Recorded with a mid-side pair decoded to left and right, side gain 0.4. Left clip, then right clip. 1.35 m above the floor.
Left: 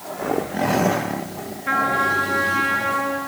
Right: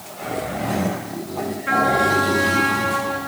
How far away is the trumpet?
About 6.5 m.